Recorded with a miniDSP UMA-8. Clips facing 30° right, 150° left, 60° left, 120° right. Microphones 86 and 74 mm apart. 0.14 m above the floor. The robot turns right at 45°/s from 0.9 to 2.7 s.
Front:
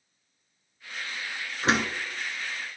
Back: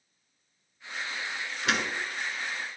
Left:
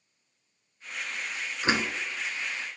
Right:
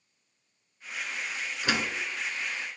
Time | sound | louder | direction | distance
1.6 | a door slam | front 4 dB, left 3 dB | 5° left | 1.3 m